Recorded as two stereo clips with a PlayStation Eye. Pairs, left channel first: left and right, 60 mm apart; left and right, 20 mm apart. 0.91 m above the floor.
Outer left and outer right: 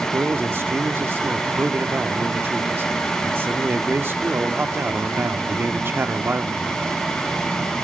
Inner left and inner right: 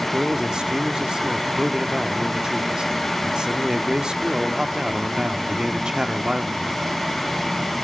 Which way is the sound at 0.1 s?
40° right (ahead or behind).